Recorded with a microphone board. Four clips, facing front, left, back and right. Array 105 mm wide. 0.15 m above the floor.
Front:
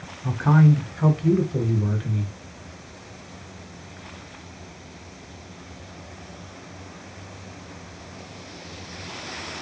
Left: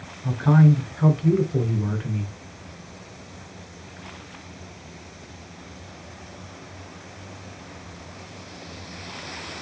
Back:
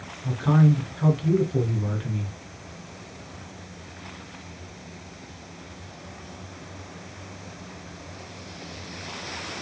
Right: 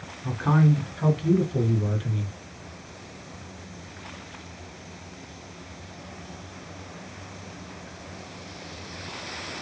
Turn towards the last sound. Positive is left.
turn(degrees=105)